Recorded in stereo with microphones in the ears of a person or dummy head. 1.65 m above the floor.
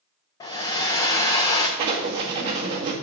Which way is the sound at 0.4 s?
20° left (ahead or behind).